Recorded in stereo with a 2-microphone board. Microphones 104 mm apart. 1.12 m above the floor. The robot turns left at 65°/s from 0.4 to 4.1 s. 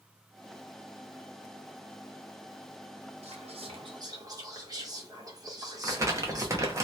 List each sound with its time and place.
3.2 s whispering: 85° right, 0.9 m; by 6.8 s 145° right, 0.9 m
5.8 s crumpling: 30° right (ahead or behind), 0.6 m